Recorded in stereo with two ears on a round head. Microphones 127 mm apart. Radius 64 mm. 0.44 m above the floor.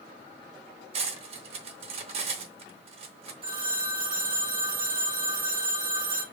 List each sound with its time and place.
0.9 s cutlery clinking: 45° right (ahead or behind), 0.6 m
3.4 s a phone ringing: 40° right (ahead or behind), 0.8 m